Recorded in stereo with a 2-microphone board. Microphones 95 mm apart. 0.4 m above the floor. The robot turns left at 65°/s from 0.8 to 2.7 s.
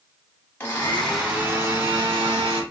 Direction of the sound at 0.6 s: 20° left.